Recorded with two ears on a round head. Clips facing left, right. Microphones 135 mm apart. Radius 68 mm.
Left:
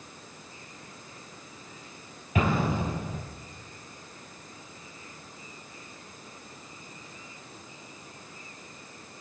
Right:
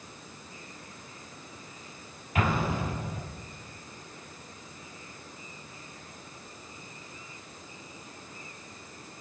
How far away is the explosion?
About 6 m.